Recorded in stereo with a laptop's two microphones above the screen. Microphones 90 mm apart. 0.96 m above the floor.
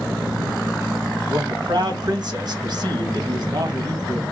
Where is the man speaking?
55° right (ahead or behind), 1.3 m.